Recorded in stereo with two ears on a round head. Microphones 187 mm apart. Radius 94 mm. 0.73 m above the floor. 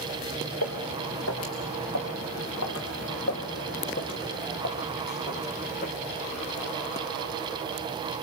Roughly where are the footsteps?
Left.